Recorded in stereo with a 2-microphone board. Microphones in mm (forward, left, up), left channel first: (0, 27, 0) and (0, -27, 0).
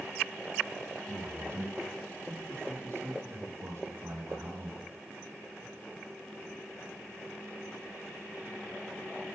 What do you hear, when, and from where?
1.1 s a man speaking: 55° right (ahead or behind), 6.5 m